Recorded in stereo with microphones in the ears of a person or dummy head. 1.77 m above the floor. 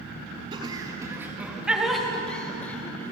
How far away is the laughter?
About 3 m.